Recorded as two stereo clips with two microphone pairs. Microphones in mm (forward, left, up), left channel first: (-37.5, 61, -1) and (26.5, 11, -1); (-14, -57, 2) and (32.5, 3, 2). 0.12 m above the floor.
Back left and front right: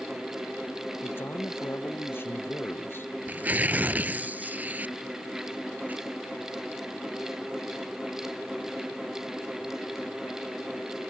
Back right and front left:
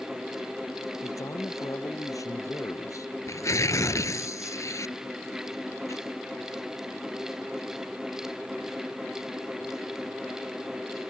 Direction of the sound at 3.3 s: 100° right.